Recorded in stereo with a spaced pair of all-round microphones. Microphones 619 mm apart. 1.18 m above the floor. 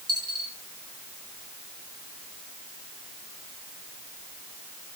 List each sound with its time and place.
0.1 s a dropped coin: 20° right (ahead or behind), 6.5 m